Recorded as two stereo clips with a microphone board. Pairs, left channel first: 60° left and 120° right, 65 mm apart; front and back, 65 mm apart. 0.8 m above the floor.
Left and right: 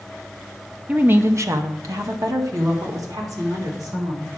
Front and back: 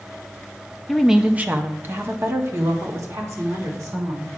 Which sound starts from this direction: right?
A woman speaking, at 0.9 s.